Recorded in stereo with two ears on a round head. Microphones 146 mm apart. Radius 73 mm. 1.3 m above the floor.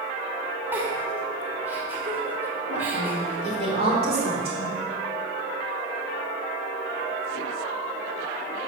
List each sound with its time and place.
0.7 s a giggle: 15° right (ahead or behind), 2.0 m
2.7 s a woman speaking: 40° right (ahead or behind), 4.5 m